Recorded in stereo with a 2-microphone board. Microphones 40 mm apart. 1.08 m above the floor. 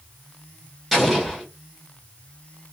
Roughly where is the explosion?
Centre.